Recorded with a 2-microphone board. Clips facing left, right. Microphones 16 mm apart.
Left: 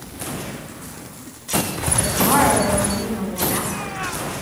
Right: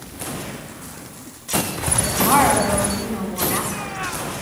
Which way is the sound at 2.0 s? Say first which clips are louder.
Right 1 dB; centre (ahead or behind).